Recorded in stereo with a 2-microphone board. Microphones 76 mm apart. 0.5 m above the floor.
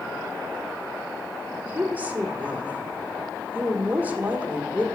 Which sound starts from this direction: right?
A woman speaking, at 1.6 s.